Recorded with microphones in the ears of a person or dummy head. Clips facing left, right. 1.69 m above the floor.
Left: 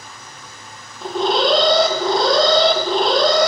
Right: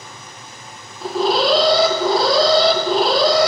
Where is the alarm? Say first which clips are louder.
Right 1 dB; 5° right (ahead or behind), 0.5 m.